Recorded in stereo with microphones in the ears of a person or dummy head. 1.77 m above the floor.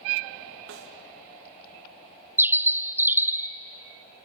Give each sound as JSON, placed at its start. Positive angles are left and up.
{"t": 0.7, "sound": "a snare drum", "side_deg": -70, "distance_m": 2.5}
{"t": 2.4, "sound": "a bird", "side_deg": -10, "distance_m": 0.6}